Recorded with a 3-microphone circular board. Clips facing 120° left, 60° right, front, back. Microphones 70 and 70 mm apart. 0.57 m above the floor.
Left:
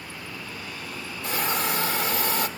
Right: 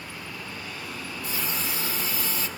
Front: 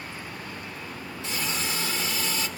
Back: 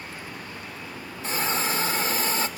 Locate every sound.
1.2 s a hiss: 135° left, 0.8 m